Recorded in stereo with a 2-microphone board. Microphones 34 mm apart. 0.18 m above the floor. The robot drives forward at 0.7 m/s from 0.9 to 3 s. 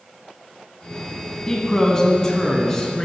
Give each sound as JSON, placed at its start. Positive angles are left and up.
{"t": 1.5, "sound": "a man speaking", "side_deg": 15, "distance_m": 1.2}